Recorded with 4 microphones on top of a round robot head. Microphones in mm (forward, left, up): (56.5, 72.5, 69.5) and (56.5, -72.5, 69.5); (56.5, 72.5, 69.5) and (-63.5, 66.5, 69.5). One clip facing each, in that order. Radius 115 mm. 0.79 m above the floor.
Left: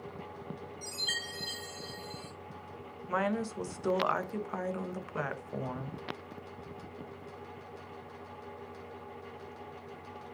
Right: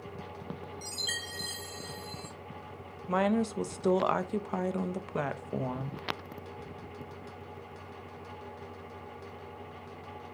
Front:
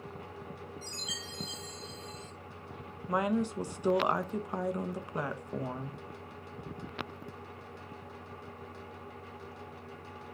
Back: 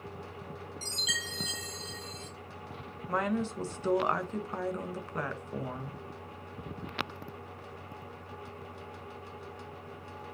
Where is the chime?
155° right, 3 m.